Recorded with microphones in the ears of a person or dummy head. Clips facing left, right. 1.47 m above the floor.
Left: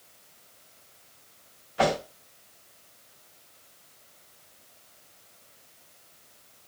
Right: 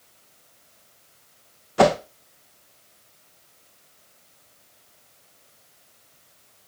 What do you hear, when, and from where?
1.8 s a whoosh: 65° right (ahead or behind), 1.1 m